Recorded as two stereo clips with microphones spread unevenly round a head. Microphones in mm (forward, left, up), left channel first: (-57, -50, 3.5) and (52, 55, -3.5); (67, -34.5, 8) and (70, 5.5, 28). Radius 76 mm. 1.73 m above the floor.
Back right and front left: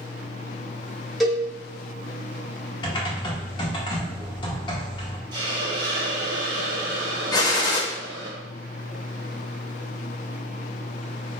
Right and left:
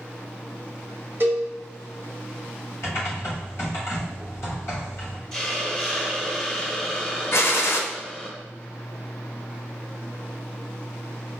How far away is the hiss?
About 0.8 m.